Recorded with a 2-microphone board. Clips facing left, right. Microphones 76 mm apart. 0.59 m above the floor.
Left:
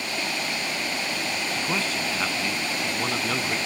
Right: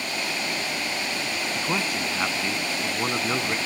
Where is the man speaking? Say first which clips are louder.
Right 2 dB; 10° right (ahead or behind).